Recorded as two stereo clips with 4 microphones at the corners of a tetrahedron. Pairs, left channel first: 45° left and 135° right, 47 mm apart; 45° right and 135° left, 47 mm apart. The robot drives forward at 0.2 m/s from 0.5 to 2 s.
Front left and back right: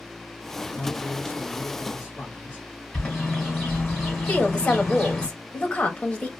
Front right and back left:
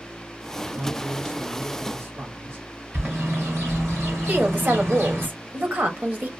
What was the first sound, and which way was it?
A man speaking, 110° left.